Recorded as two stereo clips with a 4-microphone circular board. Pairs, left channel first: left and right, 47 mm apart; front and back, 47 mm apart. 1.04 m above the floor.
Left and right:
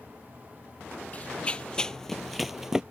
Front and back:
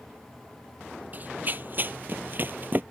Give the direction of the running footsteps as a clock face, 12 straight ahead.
7 o'clock.